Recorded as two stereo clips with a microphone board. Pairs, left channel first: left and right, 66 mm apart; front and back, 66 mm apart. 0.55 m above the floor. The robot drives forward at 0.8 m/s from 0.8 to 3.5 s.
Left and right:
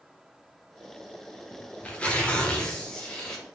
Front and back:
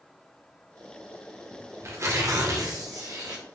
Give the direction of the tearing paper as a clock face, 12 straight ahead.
7 o'clock.